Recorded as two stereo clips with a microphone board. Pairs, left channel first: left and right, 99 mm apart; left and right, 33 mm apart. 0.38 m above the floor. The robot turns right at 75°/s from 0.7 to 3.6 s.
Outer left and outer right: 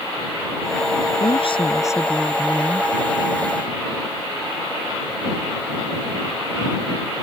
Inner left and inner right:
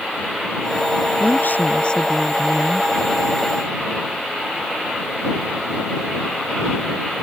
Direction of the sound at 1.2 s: 100° left.